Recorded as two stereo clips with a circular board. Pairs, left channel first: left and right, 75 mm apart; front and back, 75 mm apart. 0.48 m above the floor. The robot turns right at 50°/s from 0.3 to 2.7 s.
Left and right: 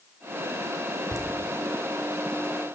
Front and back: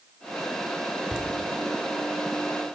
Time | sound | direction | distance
1.1 | laughter | 105° right | 1.3 m